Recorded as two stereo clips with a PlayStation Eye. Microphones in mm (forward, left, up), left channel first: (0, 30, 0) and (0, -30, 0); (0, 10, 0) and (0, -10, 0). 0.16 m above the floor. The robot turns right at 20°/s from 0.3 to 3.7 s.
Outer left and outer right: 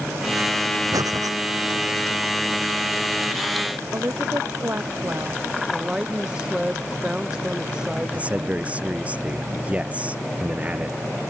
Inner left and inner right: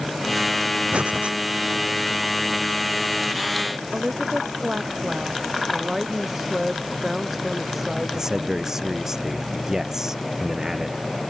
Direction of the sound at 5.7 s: 10° right (ahead or behind).